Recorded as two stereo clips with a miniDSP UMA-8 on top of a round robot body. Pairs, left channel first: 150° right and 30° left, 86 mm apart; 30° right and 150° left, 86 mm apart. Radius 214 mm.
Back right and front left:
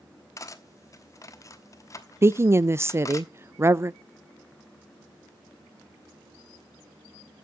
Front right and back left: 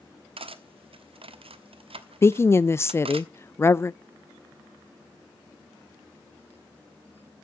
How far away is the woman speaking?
About 0.5 m.